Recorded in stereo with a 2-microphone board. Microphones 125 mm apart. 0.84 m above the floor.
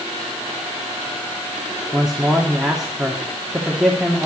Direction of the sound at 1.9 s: 5° right (ahead or behind).